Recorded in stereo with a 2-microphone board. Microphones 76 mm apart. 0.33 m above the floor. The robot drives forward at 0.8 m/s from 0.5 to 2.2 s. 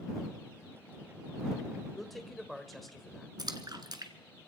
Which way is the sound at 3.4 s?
70° right (ahead or behind).